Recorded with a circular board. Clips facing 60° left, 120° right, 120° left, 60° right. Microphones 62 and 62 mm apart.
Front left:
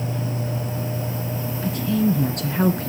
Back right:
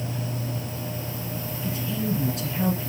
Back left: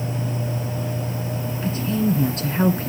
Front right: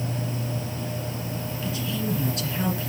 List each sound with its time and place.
1.6 s a woman speaking: 75° left, 2 m